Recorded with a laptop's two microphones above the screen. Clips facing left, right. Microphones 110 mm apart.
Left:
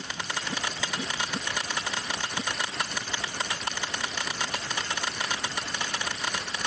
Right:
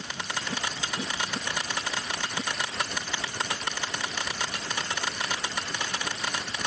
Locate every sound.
Only background noise.